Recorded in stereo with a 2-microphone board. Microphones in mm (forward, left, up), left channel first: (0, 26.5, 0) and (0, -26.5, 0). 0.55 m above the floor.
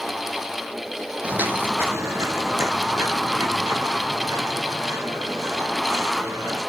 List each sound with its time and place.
1.2 s footsteps: 25° right (ahead or behind), 0.8 m; by 6.6 s 80° right, 4 m